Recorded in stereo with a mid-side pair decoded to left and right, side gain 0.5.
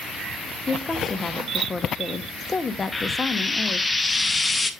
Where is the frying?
15° left, 1.0 m.